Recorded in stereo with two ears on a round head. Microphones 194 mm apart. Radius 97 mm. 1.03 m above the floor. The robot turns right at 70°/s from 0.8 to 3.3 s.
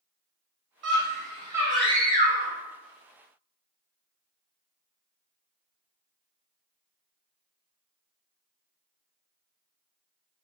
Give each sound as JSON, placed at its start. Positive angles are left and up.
{"t": 0.8, "sound": "a scream", "azimuth_deg": -65, "distance_m": 1.5}